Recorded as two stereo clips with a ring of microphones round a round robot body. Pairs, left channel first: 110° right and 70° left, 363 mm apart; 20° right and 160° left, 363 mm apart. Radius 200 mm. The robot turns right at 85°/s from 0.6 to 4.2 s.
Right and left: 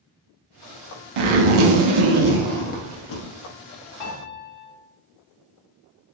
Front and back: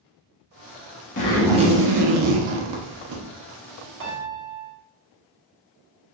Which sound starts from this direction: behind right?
A piano, at 4.0 s.